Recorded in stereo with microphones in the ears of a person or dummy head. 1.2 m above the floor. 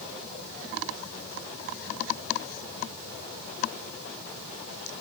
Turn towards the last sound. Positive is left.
No sound to turn to.